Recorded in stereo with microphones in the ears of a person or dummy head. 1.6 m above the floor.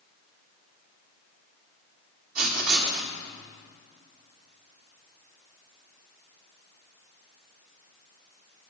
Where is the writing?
60° right (ahead or behind), 1.3 m.